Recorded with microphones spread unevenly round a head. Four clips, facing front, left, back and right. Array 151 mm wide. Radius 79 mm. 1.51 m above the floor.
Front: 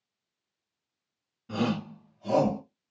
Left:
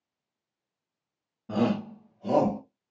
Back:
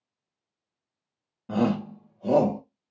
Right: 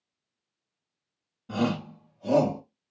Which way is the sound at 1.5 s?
150° left.